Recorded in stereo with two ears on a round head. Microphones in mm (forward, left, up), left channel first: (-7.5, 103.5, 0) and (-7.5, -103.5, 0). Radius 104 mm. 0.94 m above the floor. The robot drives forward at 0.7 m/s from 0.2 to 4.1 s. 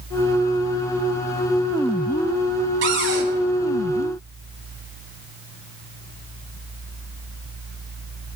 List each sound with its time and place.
2.8 s a cupboard door: 50° right (ahead or behind), 3 m; by 3.3 s 55° right (ahead or behind), 2.5 m